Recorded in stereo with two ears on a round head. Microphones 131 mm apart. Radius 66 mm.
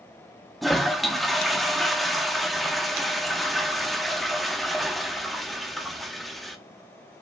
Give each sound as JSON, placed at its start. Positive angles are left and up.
{"t": 0.6, "sound": "a toilet flushing", "side_deg": 0, "distance_m": 0.6}